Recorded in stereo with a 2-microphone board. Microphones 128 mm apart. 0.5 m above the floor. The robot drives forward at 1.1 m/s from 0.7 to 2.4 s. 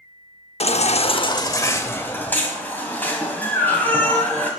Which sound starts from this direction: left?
A baby crying, at 0.6 s.